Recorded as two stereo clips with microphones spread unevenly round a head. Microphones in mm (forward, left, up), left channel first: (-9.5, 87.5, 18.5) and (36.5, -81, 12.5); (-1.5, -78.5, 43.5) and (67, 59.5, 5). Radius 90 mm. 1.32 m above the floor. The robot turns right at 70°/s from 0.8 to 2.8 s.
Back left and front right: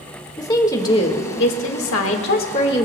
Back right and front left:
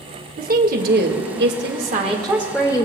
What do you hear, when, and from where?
0.4 s a woman speaking: 35° left, 1.7 m; by 2.9 s 175° left, 1.7 m